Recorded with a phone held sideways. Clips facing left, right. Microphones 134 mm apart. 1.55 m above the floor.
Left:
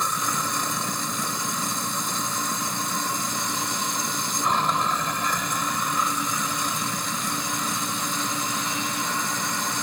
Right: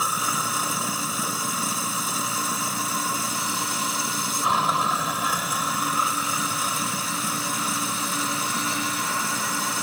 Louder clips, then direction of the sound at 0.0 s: Even; 5° right (ahead or behind).